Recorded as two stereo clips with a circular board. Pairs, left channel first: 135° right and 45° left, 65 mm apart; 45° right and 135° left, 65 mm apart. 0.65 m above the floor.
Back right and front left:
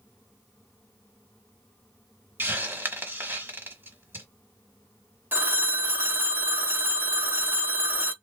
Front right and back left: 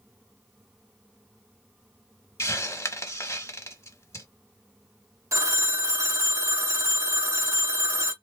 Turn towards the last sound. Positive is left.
turn(degrees=100)